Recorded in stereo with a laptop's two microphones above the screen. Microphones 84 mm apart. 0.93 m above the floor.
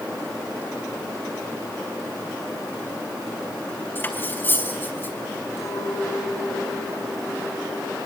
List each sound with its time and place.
4.0 s cutlery clinking: 25° left (ahead or behind), 4.5 m
5.6 s a clink: 40° left (ahead or behind), 9.5 m